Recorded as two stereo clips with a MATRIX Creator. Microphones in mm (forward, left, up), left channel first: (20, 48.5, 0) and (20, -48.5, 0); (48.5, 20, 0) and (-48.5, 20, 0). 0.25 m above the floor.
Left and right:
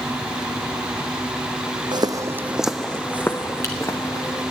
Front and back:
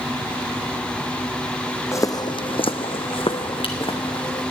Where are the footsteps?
55° right, 0.6 m; by 4.4 s 35° left, 1.7 m.